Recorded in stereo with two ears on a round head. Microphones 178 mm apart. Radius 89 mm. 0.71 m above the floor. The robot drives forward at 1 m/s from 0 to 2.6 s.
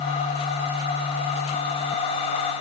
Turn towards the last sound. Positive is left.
No sound to turn to.